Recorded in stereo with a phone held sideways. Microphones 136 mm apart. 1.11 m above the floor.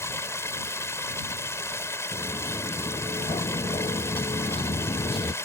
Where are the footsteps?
40° left (ahead or behind); by 5.3 s 35° left (ahead or behind).